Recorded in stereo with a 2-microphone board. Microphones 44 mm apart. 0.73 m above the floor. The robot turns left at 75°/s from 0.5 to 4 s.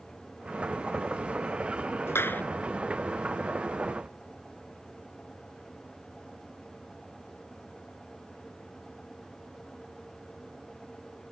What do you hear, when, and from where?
2.1 s a clap: 70° left (ahead or behind); by 2.4 s 40° left (ahead or behind)